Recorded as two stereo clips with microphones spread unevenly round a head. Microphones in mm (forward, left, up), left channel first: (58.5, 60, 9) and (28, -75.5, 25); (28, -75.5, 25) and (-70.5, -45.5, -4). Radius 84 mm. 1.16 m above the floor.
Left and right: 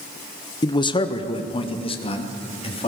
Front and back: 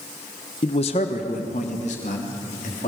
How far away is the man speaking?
About 0.9 m.